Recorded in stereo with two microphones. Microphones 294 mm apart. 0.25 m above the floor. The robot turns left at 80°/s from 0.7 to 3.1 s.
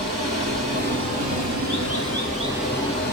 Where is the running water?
25° right, 3 m; by 3.1 s 145° left, 3 m.